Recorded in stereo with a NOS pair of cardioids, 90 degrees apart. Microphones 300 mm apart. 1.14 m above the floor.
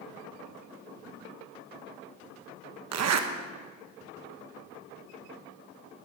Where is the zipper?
60° right, 1.2 m.